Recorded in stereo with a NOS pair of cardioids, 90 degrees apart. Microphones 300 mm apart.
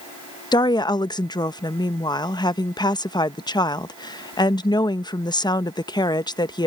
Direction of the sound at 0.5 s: 15° left.